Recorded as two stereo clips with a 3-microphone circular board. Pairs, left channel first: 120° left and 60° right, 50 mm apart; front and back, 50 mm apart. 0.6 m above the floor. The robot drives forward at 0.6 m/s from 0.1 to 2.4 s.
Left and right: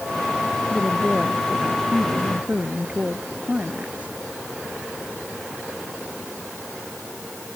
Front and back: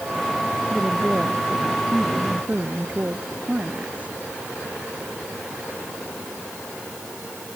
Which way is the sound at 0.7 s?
120° right.